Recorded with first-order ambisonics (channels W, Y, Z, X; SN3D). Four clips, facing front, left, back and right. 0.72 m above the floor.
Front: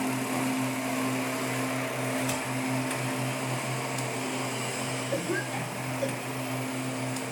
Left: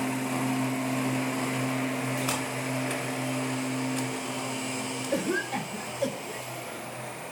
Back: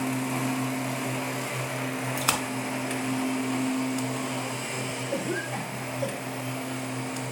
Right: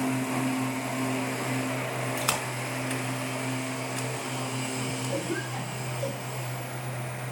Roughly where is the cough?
Left.